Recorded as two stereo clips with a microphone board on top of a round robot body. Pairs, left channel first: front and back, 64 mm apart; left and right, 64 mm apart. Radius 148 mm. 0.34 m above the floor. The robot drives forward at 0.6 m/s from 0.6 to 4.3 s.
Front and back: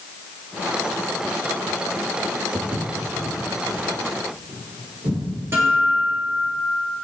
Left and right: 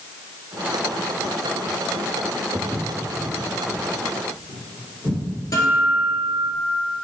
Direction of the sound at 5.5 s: 125° left.